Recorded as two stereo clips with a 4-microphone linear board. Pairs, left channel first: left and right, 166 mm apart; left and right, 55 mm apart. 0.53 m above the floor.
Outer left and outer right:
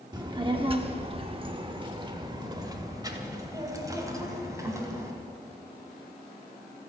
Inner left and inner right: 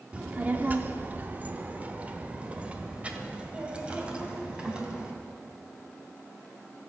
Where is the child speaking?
25° right (ahead or behind), 1.0 m; by 5.1 s 20° right (ahead or behind), 4 m.